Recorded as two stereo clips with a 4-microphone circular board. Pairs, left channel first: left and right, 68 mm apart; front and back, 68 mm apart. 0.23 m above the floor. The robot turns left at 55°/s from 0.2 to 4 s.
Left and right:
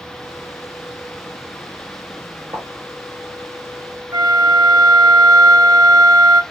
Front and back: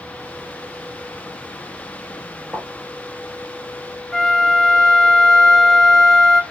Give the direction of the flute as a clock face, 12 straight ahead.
3 o'clock.